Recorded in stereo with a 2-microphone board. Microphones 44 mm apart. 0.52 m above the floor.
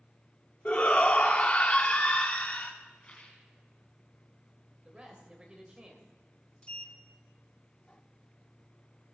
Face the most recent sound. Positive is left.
turn(degrees=20)  # may be behind; listen again after turning